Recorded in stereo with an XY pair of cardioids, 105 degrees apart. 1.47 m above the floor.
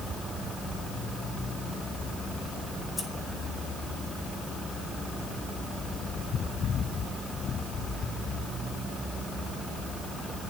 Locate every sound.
3.0 s scissors: 15° left, 3.5 m